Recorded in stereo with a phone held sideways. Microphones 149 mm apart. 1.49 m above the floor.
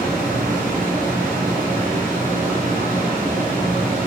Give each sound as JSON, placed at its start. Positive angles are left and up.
{"t": 0.0, "sound": "a fan", "side_deg": -70, "distance_m": 0.9}